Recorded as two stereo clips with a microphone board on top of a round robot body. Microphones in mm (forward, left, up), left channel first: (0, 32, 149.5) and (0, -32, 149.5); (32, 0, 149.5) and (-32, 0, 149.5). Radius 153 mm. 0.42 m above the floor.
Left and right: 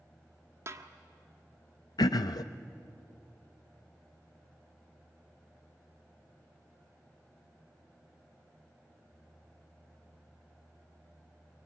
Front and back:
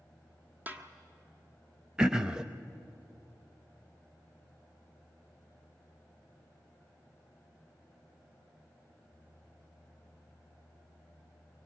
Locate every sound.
0.7 s a snare drum: 125° right, 1.5 m
2.0 s throat clearing: 100° left, 0.6 m